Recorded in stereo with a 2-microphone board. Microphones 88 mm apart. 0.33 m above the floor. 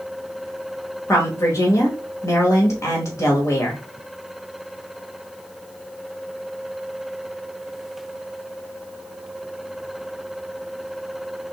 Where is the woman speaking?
35° left (ahead or behind), 1.1 m.